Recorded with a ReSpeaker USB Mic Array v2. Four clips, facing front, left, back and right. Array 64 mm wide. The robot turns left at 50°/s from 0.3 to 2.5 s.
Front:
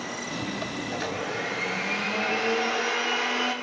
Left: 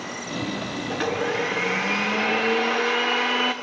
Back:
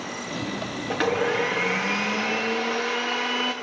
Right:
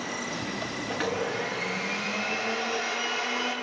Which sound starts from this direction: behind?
A blender, at 0.9 s.